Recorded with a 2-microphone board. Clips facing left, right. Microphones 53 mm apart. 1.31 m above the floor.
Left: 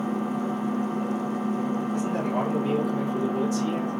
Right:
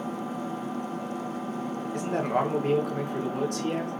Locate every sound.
0.0 s an engine running: 65° left (ahead or behind), 0.7 m
1.9 s a man speaking: 60° right (ahead or behind), 0.9 m